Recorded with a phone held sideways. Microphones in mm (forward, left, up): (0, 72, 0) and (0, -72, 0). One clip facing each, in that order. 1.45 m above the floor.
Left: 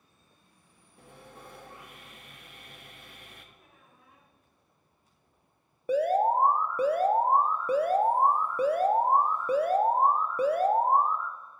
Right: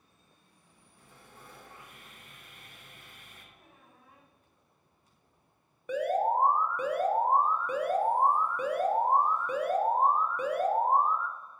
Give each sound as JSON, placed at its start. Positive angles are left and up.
{"t": 1.0, "sound": "sawing", "side_deg": 65, "distance_m": 0.7}
{"t": 3.5, "sound": "a squeak", "side_deg": -45, "distance_m": 2.5}
{"t": 5.9, "sound": "an alarm", "side_deg": 35, "distance_m": 0.6}